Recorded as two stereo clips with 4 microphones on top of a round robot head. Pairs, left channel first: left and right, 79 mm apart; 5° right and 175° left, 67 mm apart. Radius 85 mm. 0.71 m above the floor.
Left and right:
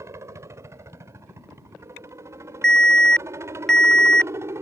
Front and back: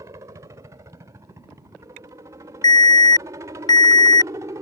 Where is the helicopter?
140° right; by 4.6 s 145° right.